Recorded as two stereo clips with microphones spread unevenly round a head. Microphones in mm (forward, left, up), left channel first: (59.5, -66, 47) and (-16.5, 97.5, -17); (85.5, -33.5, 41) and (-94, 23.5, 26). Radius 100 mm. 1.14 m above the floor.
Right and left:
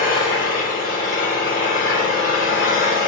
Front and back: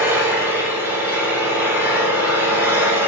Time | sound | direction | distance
0.0 | an engine running | 120° right | 3.5 m